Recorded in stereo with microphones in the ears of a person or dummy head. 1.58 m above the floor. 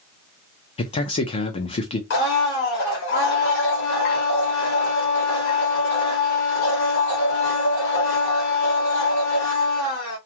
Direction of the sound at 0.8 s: 35° left (ahead or behind).